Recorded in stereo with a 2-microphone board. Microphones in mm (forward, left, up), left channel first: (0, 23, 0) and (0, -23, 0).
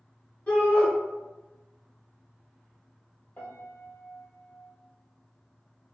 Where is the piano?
45° left (ahead or behind), 0.9 m.